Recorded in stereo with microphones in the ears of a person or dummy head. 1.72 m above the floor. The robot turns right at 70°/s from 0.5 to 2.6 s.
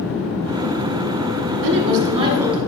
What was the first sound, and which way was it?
A woman speaking, 70° right.